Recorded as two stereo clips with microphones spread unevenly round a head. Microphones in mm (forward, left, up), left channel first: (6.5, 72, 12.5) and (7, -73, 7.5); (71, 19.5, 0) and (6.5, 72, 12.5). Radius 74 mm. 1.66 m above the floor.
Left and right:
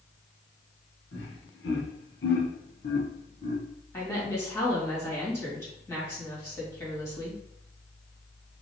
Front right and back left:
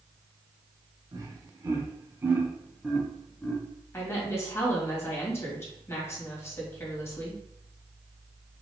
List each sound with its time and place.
1.1 s laughter: 100° left, 1.7 m; by 3.6 s 35° left, 1.2 m
3.9 s a woman speaking: 20° left, 2.5 m